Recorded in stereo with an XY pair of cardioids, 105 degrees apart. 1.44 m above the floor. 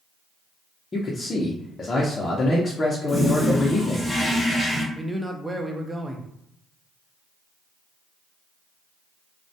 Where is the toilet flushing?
20° left, 0.9 m.